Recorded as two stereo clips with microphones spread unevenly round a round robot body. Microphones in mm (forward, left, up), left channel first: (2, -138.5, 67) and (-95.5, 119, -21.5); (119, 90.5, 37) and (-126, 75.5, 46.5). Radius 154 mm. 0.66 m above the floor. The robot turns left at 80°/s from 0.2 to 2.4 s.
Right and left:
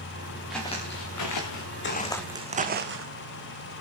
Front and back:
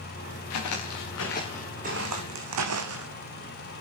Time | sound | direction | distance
0.5 | footsteps | 20° left | 3.5 m